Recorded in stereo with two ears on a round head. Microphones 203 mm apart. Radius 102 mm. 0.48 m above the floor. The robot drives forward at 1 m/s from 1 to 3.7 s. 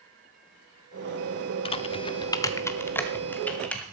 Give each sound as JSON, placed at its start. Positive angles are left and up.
{"t": 1.6, "sound": "typing on a keyboard", "side_deg": 25, "distance_m": 0.6}